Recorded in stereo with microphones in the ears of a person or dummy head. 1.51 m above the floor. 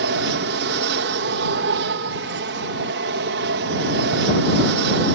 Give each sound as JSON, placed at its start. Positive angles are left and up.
{"t": 0.0, "sound": "an aircraft", "side_deg": -60}